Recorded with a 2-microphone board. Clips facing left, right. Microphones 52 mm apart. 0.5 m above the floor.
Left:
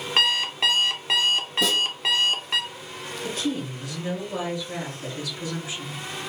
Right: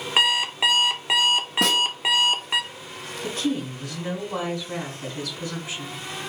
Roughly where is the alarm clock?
Centre.